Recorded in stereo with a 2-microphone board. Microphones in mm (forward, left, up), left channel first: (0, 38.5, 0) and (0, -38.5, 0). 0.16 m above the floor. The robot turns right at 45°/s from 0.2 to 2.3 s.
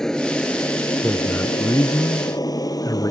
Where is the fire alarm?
No fire alarm in this recording.